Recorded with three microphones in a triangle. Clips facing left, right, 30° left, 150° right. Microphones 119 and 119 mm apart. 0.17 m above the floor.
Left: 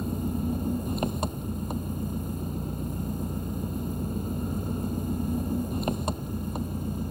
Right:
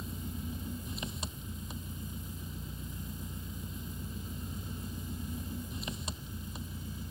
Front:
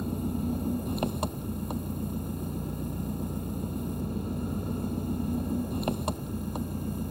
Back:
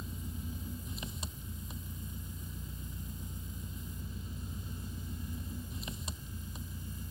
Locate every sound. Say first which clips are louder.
0.0 s an engine running: left 13 dB, front 14 dB; 55° left